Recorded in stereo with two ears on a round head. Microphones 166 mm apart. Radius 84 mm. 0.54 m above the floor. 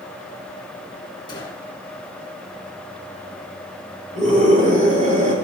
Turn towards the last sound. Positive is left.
turn(degrees=-40)  # may be behind; listen again after turning